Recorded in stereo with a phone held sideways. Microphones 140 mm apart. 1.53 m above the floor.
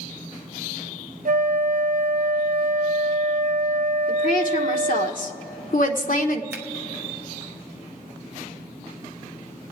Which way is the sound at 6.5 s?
15° right (ahead or behind).